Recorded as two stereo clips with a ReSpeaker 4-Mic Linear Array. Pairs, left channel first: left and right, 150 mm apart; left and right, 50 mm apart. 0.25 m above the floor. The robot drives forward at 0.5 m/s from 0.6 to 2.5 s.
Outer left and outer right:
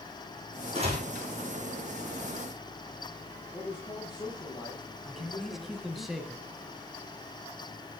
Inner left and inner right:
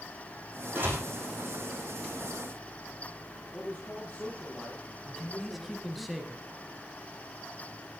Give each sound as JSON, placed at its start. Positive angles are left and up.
{"t": 0.8, "sound": "a door slam", "side_deg": -40, "distance_m": 8.5}
{"t": 3.5, "sound": "a man speaking", "side_deg": 25, "distance_m": 7.5}
{"t": 5.0, "sound": "a man speaking", "side_deg": 0, "distance_m": 1.5}